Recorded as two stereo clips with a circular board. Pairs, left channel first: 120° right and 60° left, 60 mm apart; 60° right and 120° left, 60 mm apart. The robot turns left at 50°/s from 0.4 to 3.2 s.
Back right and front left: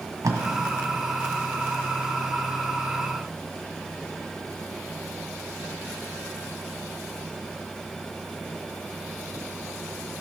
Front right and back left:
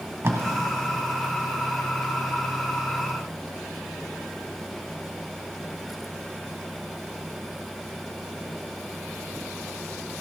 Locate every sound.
0.2 s tape being pulled: 75° left, 1.5 m; by 0.4 s 70° left, 1.5 m